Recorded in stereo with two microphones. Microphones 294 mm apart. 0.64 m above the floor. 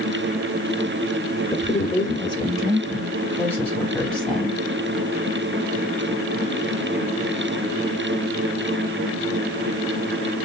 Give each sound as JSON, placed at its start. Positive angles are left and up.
{"t": 1.5, "sound": "a woman speaking", "side_deg": 25, "distance_m": 2.0}